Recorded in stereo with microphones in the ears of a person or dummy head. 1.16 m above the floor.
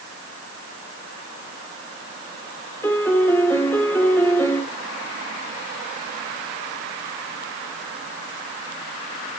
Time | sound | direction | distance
2.8 | a piano | 15° left (ahead or behind) | 1.0 m